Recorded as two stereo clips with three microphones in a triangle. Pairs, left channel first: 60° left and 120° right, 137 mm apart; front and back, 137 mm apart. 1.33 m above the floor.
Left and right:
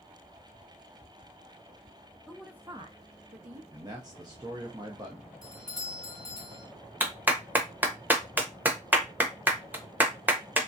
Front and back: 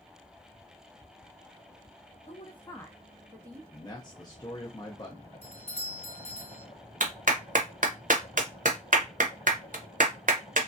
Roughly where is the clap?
Behind.